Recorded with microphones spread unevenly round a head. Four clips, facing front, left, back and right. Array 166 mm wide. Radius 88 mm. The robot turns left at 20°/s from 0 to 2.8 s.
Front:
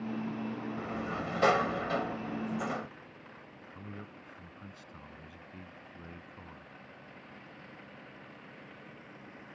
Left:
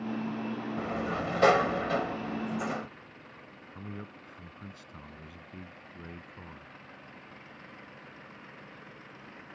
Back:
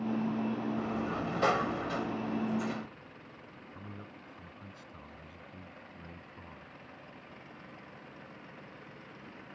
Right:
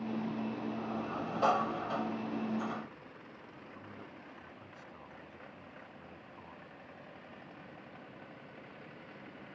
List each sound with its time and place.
0.8 s a sliding door: 75° left; by 2.9 s 35° left
3.8 s a man speaking: 65° left